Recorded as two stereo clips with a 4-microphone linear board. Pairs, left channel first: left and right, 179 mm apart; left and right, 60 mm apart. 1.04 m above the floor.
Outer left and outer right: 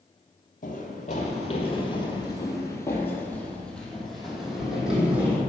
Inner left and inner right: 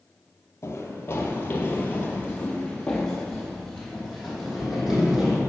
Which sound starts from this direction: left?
Running footsteps, at 0.6 s.